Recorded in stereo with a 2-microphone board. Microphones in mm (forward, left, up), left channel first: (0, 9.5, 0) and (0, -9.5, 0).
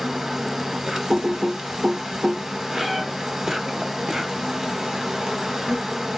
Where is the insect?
35° right (ahead or behind), 0.8 m.